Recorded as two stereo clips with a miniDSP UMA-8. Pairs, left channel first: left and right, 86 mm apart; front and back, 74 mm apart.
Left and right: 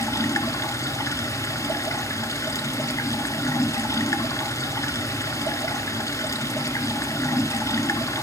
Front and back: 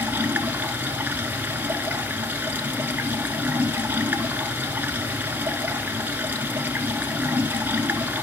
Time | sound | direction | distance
0.0 | running water | 125° left | 0.9 m